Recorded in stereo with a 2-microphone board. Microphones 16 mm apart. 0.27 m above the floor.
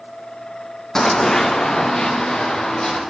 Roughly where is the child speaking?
I don't hear a child speaking.